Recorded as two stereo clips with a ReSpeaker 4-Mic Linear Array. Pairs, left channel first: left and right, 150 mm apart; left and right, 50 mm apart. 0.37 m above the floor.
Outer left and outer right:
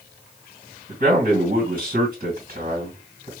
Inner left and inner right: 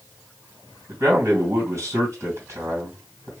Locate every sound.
0.9 s a man speaking: 65° right (ahead or behind), 2.5 m